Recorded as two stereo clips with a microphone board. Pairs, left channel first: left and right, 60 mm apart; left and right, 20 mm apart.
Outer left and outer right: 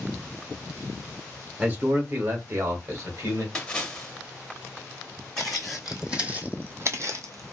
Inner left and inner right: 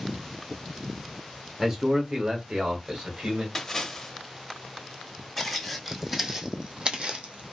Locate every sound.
1.6 s a man speaking: 25° right (ahead or behind), 0.8 m; by 3.5 s 55° right (ahead or behind), 1.7 m
3.5 s a splash: 15° left (ahead or behind), 0.7 m
5.4 s footsteps: 5° left (ahead or behind), 1.1 m; by 7.5 s 65° right (ahead or behind), 0.8 m